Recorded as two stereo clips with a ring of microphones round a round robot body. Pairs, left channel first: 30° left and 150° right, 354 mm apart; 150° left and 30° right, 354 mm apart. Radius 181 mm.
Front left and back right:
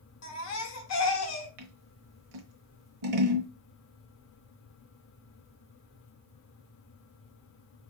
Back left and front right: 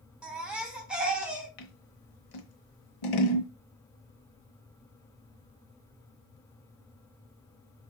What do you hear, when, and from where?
0.2 s a baby crying: 55° left, 1.1 m
1.6 s scissors: 175° left, 1.0 m